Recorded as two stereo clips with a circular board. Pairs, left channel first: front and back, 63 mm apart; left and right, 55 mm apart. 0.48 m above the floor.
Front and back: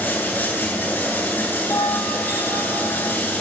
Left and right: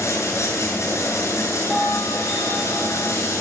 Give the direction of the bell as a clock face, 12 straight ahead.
12 o'clock.